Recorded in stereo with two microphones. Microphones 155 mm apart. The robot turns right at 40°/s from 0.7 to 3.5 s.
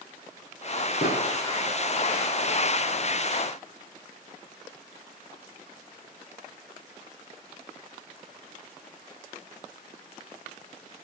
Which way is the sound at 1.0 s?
80° left.